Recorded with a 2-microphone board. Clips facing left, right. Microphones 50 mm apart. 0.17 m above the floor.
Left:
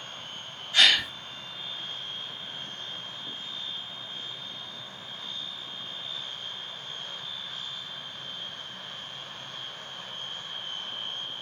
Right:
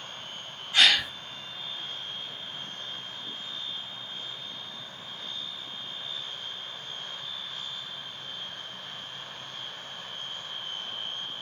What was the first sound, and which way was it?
A gasp, 15° right (ahead or behind).